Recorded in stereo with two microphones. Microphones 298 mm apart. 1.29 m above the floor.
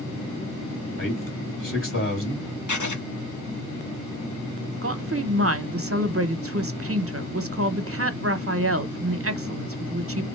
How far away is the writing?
About 1.0 m.